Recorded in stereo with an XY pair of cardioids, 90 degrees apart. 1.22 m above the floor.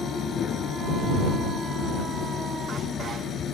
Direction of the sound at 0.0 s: 60° left.